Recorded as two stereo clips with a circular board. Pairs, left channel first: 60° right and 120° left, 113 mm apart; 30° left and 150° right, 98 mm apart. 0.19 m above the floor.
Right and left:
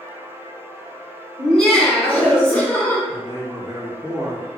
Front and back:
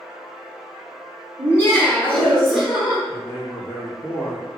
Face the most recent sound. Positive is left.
turn(degrees=95)